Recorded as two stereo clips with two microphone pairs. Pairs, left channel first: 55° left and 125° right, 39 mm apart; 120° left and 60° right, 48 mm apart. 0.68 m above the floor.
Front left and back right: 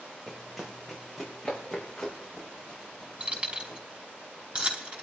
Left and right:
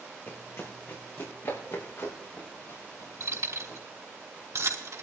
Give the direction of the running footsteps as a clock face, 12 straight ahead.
7 o'clock.